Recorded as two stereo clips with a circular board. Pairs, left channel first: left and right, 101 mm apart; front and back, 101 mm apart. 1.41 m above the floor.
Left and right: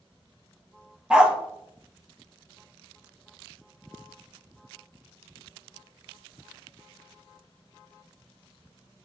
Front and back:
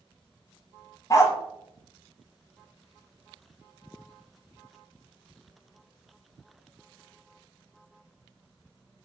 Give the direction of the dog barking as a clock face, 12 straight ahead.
1 o'clock.